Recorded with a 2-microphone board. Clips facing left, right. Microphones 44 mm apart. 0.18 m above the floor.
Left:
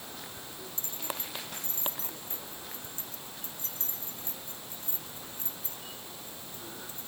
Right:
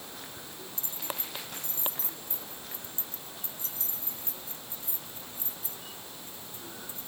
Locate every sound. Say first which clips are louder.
0.8 s keys jangling: even; 45° left (ahead or behind)